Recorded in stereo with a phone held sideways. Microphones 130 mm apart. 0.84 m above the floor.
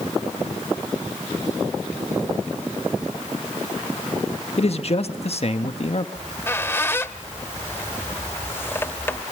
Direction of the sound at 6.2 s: 15° left (ahead or behind).